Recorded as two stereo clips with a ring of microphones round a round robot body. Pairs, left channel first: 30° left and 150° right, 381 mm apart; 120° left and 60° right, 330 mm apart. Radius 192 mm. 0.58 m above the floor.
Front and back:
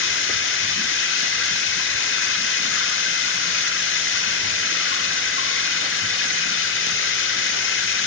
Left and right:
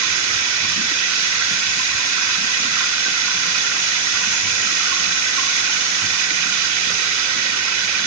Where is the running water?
30° right, 2.5 m.